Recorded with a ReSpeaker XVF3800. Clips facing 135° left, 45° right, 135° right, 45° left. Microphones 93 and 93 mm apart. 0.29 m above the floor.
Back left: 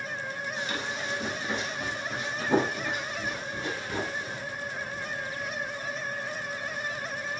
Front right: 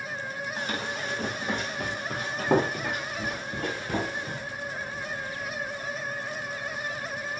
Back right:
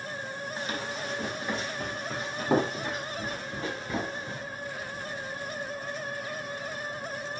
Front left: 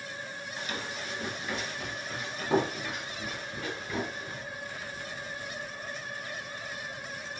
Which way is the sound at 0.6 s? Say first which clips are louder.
Front right 2 dB, back right 2 dB; 85° right.